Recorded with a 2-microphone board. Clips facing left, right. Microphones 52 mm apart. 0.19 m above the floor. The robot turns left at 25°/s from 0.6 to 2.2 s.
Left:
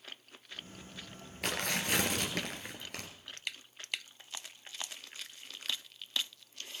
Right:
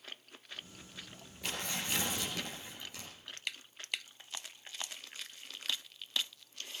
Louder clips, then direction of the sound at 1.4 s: Left 5 dB; 70° left (ahead or behind).